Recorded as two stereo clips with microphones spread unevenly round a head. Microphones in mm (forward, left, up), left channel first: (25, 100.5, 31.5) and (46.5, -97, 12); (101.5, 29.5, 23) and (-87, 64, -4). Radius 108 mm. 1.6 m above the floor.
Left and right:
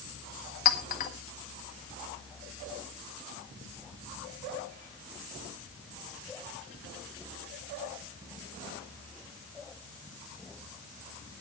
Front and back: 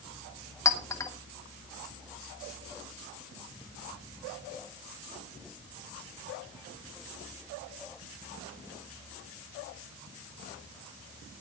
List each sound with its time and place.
0.7 s a clink: 60° left, 1.6 m